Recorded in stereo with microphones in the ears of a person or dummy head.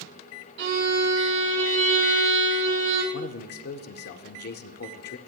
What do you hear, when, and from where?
0.6 s a violin: 65° right (ahead or behind), 3 m
3.1 s a man speaking: 50° left (ahead or behind), 0.5 m